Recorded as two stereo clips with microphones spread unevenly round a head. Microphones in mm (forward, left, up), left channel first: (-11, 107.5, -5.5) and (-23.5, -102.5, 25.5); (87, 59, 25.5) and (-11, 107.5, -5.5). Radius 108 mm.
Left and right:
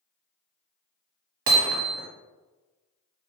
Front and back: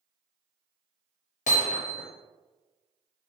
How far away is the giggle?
No giggle in this recording.